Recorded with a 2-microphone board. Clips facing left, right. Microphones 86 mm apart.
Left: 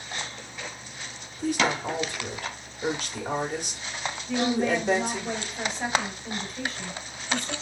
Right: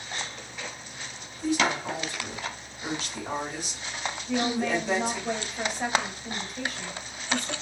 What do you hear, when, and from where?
1.4 s a woman speaking: 50° left (ahead or behind), 1.6 m
4.3 s a woman speaking: 5° right (ahead or behind), 2 m